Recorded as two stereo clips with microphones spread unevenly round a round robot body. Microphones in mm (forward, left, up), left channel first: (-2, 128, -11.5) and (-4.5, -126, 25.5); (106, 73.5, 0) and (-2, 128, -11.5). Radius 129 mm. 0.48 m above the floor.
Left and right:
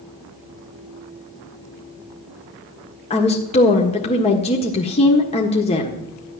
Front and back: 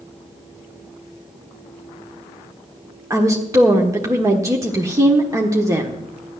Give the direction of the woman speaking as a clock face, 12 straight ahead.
8 o'clock.